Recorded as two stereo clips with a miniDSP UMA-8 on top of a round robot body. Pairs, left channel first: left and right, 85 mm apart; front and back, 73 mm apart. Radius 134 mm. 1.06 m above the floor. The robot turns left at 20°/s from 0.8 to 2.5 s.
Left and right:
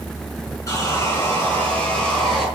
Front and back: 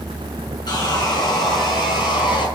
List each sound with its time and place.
0.7 s sawing: 35° left, 5 m; by 2.5 s straight ahead, 5 m